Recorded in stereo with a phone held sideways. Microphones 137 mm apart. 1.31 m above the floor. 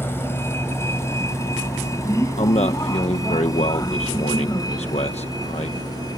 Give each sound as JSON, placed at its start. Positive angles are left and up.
{"t": 0.0, "sound": "a vehicle", "side_deg": 15}
{"t": 2.4, "sound": "a man speaking", "side_deg": 55}